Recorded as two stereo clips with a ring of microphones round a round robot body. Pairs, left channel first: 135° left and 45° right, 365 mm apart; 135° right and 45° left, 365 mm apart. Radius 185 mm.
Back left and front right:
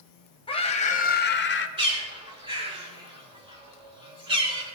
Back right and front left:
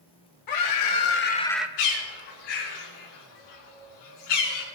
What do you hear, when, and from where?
0.5 s a scream: 150° right, 1.9 m; by 1.7 s 125° left, 1.0 m
1.8 s a bird: 120° right, 4.5 m